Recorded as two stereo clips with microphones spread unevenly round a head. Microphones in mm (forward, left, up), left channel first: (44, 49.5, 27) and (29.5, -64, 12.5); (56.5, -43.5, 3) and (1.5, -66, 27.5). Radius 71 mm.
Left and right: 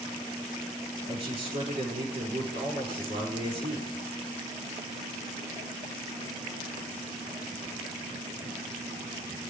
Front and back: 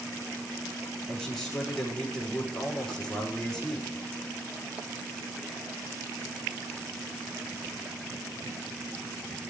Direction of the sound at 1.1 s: 65° right.